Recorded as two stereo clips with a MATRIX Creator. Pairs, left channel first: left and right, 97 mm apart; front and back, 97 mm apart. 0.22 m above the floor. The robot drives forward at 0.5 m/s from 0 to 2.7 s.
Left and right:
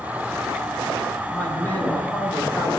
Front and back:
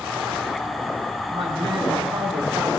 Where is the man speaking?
160° left, 7.5 m.